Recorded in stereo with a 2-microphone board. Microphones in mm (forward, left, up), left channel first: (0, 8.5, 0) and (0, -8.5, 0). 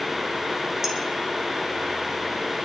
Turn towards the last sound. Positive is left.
turn(degrees=-20)  # may be behind; listen again after turning